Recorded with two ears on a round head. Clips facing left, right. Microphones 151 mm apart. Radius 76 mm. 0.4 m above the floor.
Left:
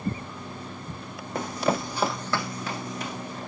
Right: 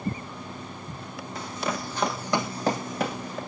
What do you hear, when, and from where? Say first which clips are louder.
1.4 s running footsteps: left 6 dB; 40° left (ahead or behind), 1.5 m; by 3.4 s 55° right (ahead or behind), 2 m